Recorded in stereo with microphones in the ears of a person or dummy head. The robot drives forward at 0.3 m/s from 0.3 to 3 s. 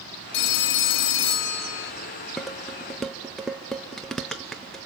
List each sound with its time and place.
0.3 s a phone ringing: 60° left (ahead or behind), 0.9 m
2.4 s dishes clattering: centre (ahead or behind), 0.6 m